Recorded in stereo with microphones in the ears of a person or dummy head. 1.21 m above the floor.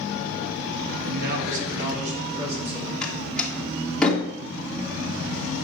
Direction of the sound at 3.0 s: Centre (ahead or behind).